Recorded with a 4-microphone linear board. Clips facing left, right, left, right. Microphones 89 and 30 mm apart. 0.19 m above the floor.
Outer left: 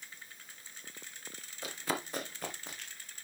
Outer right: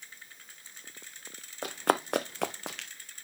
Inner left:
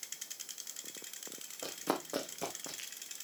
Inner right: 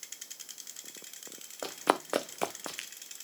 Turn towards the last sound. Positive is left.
turn(degrees=-70)  # may be behind; listen again after turning